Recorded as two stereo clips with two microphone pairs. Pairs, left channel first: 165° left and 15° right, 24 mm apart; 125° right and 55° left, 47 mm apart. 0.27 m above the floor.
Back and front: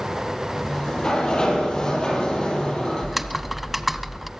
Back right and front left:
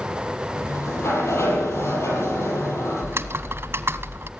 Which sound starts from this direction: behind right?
A sliding door, at 0.6 s.